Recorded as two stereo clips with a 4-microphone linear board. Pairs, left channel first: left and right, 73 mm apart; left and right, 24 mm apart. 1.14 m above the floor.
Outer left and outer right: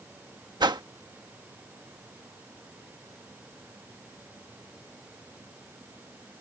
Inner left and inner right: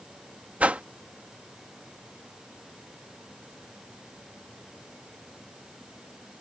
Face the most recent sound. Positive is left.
turn(degrees=-80)